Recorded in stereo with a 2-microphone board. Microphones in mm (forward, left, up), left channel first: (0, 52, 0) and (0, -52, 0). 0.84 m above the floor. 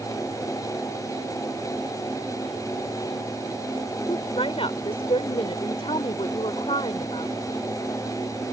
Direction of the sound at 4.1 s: 65° left (ahead or behind).